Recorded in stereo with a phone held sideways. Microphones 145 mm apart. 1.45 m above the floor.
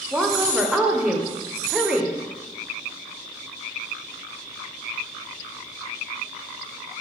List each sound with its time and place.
0.1 s a woman speaking: 5° right (ahead or behind), 0.5 m